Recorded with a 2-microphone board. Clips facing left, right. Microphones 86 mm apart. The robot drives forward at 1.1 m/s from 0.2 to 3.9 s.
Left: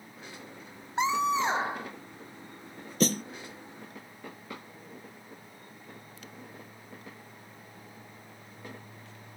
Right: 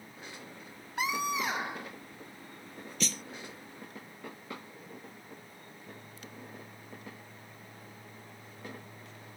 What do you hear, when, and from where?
1.0 s a scream: 25° left (ahead or behind); by 1.9 s 30° left (ahead or behind)
3.0 s a snare drum: 40° left (ahead or behind); by 3.2 s 50° left (ahead or behind)